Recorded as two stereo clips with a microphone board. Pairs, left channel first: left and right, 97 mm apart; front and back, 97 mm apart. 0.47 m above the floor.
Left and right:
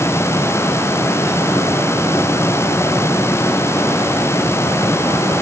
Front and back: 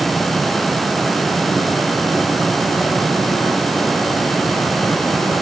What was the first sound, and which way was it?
Only background noise.